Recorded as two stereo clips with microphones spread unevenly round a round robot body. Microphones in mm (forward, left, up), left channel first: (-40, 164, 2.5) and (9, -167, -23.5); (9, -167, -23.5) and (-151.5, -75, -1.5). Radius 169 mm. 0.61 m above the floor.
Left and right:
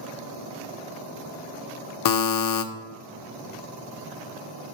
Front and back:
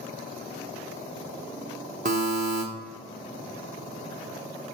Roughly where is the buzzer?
Left.